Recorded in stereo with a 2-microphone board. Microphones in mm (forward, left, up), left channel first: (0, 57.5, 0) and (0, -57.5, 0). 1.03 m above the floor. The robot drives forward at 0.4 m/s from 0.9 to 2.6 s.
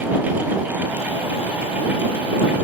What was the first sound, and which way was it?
Only background noise.